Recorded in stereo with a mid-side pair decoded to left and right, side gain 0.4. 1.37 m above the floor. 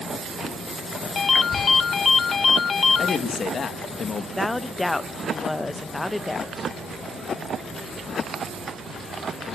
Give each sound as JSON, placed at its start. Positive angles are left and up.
{"t": 1.1, "sound": "a ringtone", "azimuth_deg": 45, "distance_m": 1.2}
{"t": 3.0, "sound": "a man speaking", "azimuth_deg": 50, "distance_m": 2.5}
{"t": 4.4, "sound": "a woman speaking", "azimuth_deg": 20, "distance_m": 1.1}